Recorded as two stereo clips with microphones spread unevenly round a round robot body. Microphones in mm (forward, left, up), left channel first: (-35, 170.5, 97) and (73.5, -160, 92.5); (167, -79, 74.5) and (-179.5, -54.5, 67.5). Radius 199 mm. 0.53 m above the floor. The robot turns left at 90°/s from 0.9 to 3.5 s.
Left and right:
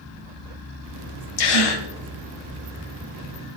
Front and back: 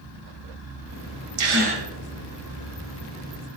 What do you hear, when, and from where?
1.4 s a gasp: 130° left, 1.8 m; by 1.9 s 90° left, 1.8 m